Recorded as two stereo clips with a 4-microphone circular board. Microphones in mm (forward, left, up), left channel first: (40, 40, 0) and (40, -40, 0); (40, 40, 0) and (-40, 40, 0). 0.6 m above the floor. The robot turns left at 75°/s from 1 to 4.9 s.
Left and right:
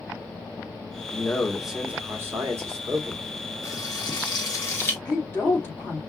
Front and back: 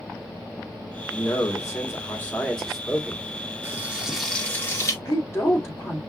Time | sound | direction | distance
1.1 | a man speaking | 35° left | 1.1 m
3.6 | frying | 130° left | 1.2 m
5.0 | a woman speaking | 35° left | 1.9 m